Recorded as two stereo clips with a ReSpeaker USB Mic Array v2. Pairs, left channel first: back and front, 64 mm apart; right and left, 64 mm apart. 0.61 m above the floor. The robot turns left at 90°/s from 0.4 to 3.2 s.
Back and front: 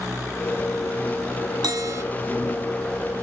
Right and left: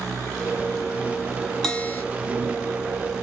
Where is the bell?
5° right, 1.0 m; by 2.0 s 40° right, 1.0 m.